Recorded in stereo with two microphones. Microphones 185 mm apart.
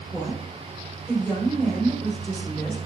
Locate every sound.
0.1 s a woman speaking: 5° left (ahead or behind), 4 m